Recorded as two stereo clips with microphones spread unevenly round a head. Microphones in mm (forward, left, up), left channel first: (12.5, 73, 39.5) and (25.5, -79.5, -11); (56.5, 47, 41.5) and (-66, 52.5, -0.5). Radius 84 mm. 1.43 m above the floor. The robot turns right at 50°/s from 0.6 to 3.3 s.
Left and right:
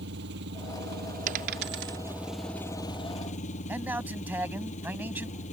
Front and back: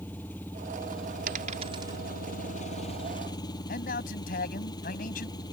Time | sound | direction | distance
0.0 | an engine running | 80° right | ?
1.3 | a dropped coin | 135° right | ?
3.7 | a man speaking | 5° right | ?